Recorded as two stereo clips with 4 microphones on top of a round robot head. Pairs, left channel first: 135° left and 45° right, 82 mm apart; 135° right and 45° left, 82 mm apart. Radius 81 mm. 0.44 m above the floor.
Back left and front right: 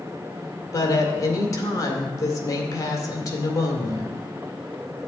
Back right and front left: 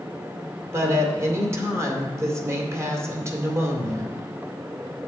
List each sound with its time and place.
0.7 s a woman speaking: 95° left, 2 m